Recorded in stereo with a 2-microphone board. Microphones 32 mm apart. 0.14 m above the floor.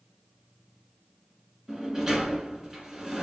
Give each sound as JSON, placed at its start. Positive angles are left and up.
{"t": 1.7, "sound": "a sliding door", "side_deg": -15, "distance_m": 1.1}